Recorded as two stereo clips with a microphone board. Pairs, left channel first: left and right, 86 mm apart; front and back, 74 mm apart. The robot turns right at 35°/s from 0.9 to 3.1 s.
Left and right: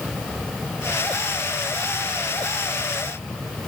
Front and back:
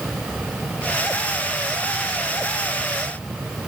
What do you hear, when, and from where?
Only background noise.